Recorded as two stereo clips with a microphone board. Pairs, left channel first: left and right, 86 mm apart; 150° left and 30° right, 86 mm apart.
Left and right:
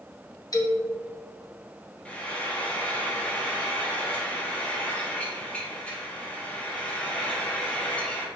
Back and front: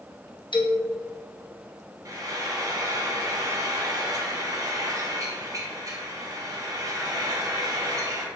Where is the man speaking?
135° left, 0.7 m.